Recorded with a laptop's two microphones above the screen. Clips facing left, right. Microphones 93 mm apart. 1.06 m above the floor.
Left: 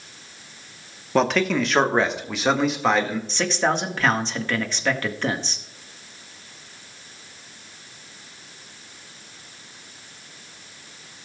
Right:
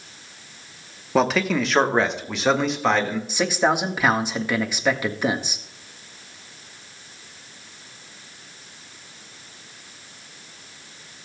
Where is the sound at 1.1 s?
5° right (ahead or behind), 1.2 m; by 3.2 s centre (ahead or behind), 2 m.